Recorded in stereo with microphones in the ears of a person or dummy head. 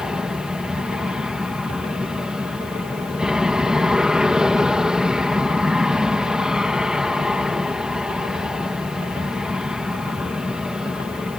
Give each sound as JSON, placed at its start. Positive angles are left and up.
{"t": 0.0, "sound": "an aircraft", "side_deg": 5}